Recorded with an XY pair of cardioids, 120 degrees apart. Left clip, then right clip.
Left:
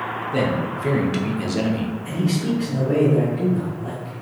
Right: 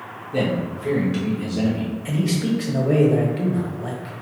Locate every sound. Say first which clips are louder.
0.3 s a man speaking: right 1 dB; 20° left, 1.2 m; by 1.9 s 65° left, 0.9 m
2.0 s a man speaking: right 1 dB; 60° right, 1.4 m